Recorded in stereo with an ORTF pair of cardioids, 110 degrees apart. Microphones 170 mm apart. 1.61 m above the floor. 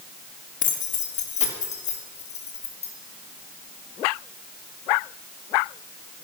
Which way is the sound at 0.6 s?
50° left.